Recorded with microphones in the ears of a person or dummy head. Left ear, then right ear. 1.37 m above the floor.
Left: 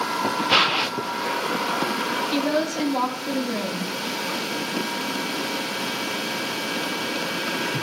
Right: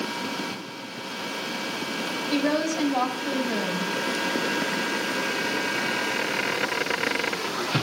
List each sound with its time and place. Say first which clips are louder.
2.3 s a woman speaking: left 1 dB; 55° right (ahead or behind), 3.5 m